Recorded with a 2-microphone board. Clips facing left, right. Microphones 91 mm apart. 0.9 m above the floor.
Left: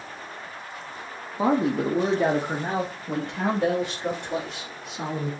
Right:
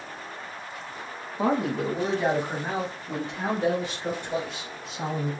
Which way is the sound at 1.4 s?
10° left (ahead or behind).